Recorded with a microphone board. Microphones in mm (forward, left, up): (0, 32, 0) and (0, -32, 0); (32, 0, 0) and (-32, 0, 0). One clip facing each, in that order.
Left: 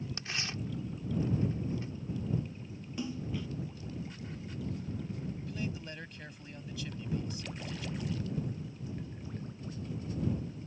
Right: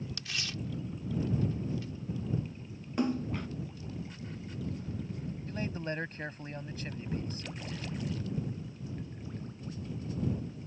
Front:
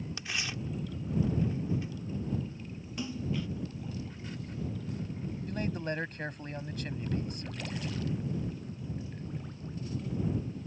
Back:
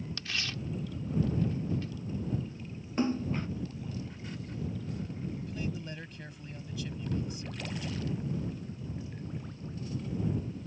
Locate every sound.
0.2 s tearing paper: 65° left
3.0 s a splash: 130° right
5.5 s a man speaking: 40° right